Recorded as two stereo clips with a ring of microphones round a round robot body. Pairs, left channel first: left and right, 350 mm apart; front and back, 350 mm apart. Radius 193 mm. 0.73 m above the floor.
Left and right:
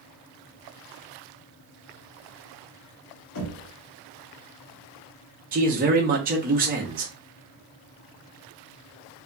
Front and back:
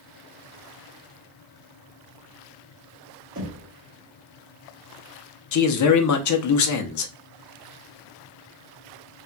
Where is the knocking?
115° left, 1.3 m.